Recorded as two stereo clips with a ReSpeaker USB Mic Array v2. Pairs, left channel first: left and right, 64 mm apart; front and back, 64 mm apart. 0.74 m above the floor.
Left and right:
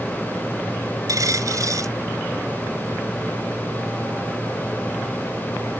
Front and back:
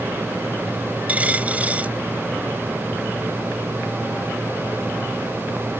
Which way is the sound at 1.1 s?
115° right.